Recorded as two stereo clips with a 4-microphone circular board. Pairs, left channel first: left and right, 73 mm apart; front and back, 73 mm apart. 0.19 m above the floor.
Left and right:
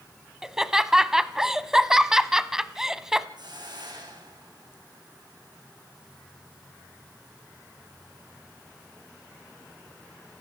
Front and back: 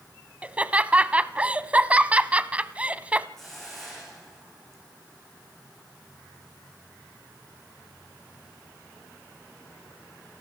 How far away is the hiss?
About 7.5 m.